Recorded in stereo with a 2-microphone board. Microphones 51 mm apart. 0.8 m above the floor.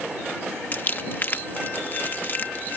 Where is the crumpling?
40° left (ahead or behind).